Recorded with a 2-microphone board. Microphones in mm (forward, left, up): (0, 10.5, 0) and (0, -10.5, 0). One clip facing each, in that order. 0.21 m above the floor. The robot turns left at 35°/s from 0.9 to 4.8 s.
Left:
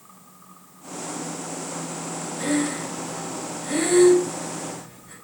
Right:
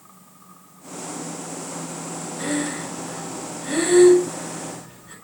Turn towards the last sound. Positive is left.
turn(degrees=-20)  # may be behind; listen again after turning